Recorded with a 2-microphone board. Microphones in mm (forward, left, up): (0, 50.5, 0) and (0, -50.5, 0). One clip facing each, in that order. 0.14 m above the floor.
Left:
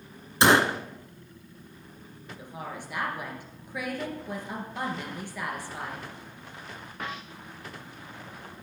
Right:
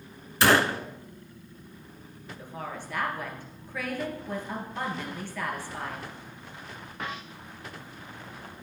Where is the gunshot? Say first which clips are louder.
Left 1 dB; 20° left (ahead or behind), 0.5 m.